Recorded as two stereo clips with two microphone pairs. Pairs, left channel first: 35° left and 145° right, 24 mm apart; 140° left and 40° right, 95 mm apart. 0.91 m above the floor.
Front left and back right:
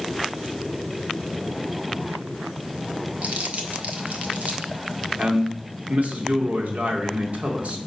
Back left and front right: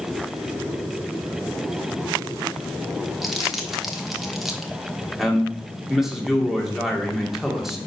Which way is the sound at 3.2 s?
125° right.